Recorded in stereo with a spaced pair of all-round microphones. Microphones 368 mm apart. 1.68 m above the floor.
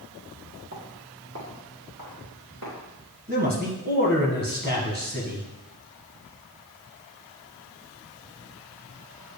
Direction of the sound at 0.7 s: 40° right (ahead or behind).